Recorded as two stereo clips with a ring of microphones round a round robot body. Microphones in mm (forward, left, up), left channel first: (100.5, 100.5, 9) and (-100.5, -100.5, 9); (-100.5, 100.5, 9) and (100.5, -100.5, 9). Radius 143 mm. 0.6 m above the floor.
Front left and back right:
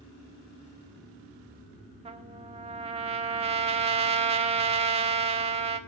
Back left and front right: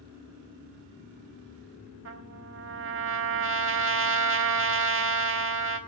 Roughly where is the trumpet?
Right.